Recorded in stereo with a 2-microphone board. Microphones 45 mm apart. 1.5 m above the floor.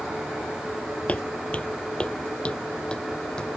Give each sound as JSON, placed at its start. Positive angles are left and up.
{"t": 1.1, "sound": "footsteps", "side_deg": 30}